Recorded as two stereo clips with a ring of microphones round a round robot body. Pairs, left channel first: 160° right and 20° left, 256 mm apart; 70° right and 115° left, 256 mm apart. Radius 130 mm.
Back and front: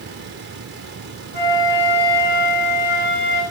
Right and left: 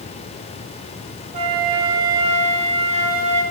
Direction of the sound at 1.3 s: 175° left.